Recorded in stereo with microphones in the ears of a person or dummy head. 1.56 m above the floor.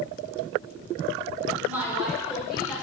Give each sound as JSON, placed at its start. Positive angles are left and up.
{"t": 1.6, "sound": "a woman speaking", "side_deg": -15, "distance_m": 1.8}